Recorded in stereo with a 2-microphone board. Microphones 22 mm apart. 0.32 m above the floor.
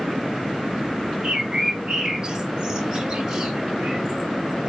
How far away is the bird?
About 0.9 m.